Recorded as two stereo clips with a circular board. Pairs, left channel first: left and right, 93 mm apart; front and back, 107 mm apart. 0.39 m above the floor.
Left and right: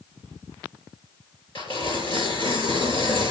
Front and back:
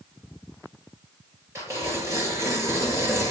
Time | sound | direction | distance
1.6 | tearing paper | 115° left | 5 m